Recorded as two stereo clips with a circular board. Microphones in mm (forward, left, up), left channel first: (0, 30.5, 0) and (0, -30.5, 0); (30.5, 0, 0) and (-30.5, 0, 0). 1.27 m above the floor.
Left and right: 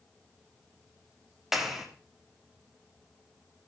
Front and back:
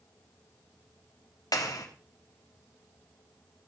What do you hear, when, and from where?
1.5 s a clap: 5° right, 3 m